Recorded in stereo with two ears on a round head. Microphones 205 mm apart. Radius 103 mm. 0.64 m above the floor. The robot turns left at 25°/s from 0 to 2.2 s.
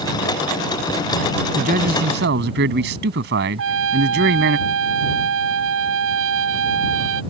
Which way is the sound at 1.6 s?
35° right (ahead or behind).